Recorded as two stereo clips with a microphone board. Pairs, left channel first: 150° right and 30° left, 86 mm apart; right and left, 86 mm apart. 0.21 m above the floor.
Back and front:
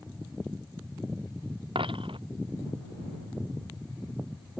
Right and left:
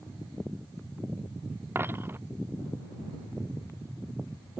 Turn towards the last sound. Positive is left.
turn(degrees=25)